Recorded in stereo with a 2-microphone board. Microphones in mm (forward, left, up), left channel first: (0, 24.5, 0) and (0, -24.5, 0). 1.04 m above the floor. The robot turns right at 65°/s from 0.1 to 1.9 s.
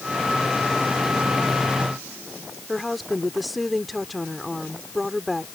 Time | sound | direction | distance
2.7 | a woman speaking | centre (ahead or behind) | ?